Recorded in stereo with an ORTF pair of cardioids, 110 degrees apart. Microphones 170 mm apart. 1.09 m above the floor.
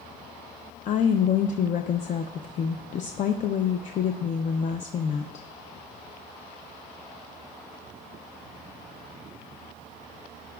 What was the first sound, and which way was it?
A woman speaking, 45° left.